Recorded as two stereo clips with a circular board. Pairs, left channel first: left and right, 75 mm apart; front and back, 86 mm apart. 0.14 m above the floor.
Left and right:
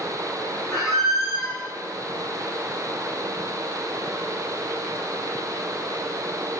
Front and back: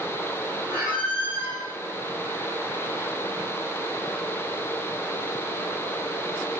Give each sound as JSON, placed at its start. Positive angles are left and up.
{"t": 0.7, "sound": "a squeak", "azimuth_deg": -5, "distance_m": 3.0}